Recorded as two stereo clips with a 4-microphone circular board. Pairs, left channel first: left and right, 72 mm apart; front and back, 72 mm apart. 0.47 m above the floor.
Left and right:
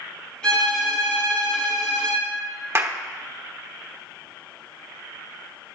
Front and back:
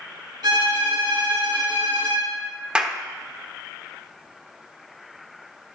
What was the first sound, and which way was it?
A violin, 170° left.